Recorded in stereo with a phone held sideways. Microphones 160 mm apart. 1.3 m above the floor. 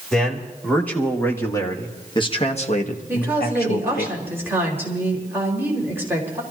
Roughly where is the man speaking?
Centre.